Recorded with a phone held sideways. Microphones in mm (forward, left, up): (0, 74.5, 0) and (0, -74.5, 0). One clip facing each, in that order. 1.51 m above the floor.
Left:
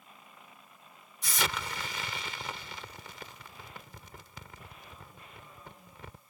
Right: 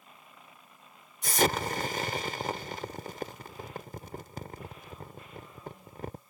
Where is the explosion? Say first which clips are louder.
Right 8 dB; 50° right (ahead or behind).